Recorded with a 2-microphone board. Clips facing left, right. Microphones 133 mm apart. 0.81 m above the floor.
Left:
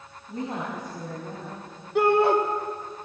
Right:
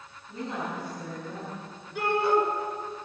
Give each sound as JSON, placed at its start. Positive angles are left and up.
{"t": 0.3, "sound": "a woman speaking", "side_deg": 40, "distance_m": 5.5}
{"t": 1.9, "sound": "a shout", "side_deg": 65, "distance_m": 2.0}